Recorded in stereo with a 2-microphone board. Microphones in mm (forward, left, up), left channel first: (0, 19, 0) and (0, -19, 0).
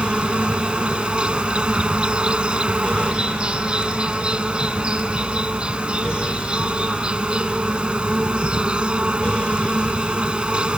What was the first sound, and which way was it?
An insect, 30° right (ahead or behind).